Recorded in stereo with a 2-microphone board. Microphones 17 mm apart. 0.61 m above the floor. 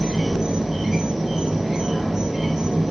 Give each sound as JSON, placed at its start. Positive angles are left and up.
{"t": 0.0, "sound": "an insect", "side_deg": -15, "distance_m": 1.7}